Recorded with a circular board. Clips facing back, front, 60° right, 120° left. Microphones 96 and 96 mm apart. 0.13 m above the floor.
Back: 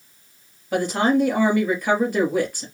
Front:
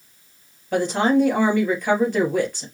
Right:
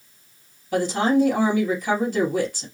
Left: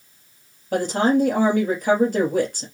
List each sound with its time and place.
0.7 s a woman speaking: 95° left, 2.5 m